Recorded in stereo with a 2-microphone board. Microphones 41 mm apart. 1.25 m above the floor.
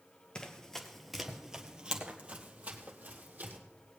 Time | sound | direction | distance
0.3 | running footsteps | 20° left (ahead or behind) | 1.3 m